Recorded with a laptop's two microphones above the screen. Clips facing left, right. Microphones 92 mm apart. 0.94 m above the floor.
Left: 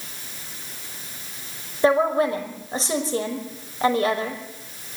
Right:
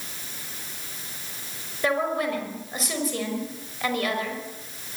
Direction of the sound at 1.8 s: 30° left (ahead or behind).